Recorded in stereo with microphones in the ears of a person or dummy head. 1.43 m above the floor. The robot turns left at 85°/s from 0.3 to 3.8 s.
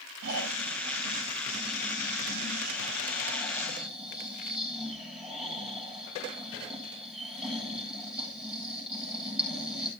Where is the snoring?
65° right, 9.5 m; by 9.9 s straight ahead, 9.5 m.